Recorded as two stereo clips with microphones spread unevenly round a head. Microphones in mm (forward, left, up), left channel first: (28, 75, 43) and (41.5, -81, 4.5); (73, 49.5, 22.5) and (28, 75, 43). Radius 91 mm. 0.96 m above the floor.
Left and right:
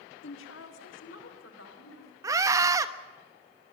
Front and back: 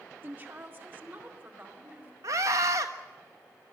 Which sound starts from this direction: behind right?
A scream, at 2.2 s.